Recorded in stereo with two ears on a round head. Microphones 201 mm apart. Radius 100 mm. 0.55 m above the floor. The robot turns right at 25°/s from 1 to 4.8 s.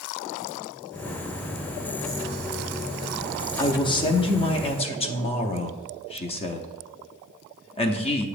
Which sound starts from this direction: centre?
A man speaking, at 3.6 s.